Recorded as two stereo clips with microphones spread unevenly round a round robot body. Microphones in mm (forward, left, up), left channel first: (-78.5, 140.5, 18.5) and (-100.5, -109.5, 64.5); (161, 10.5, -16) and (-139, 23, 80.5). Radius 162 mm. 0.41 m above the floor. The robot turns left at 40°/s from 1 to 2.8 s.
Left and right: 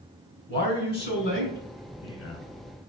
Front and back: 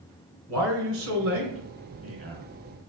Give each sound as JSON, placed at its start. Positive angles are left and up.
{"t": 0.5, "sound": "a man speaking", "azimuth_deg": 125, "distance_m": 1.9}